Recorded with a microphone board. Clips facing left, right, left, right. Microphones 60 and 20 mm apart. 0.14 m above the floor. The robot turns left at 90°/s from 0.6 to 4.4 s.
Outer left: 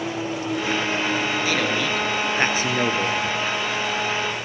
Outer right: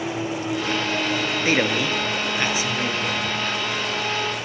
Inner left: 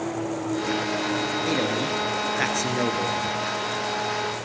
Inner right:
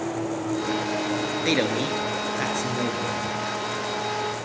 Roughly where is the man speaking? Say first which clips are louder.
Outer right 1 dB, inner right 4 dB; behind right.